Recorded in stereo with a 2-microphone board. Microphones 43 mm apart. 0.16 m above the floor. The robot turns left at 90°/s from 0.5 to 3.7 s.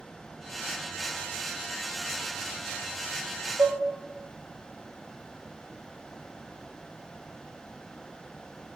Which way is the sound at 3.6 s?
75° right (ahead or behind).